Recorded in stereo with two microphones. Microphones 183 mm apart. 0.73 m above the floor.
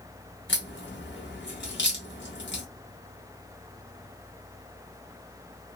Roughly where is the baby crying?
I don't hear a baby crying.